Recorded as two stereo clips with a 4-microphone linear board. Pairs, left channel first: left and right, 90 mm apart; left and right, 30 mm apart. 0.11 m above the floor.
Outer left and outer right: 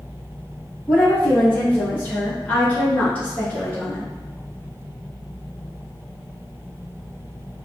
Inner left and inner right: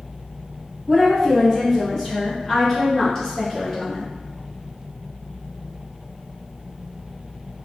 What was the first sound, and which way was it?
A woman speaking, 15° left (ahead or behind).